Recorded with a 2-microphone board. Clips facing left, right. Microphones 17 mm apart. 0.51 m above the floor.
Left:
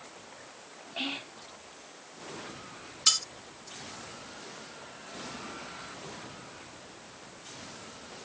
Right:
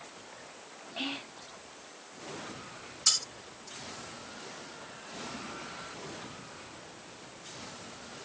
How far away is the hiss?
No hiss in this recording.